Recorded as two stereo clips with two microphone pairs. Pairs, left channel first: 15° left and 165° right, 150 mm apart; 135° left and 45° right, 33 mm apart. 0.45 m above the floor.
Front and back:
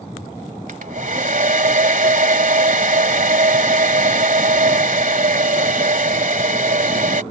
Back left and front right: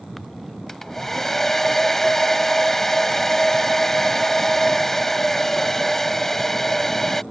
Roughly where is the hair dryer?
Behind right.